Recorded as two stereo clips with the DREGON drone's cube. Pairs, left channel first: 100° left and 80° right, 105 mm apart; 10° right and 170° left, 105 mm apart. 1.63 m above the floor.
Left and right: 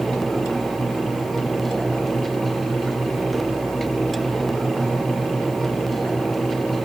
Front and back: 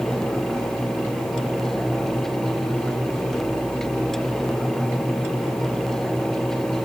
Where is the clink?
No clink in this recording.